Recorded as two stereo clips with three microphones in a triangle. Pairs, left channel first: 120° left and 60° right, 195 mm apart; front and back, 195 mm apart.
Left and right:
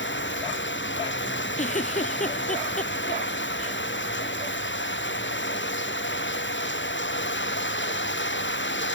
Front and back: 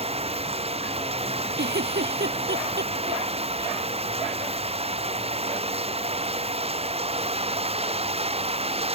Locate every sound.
0.0 s running water: 125° left
1.6 s a giggle: 165° left